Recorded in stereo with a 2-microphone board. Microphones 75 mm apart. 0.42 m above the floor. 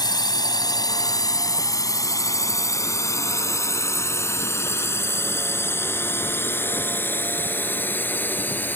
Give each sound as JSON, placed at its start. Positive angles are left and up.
{"t": 0.0, "sound": "a drone", "side_deg": 60}